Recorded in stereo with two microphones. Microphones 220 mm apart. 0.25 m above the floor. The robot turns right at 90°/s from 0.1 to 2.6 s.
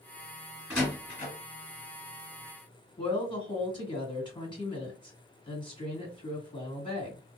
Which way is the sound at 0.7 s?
10° right (ahead or behind).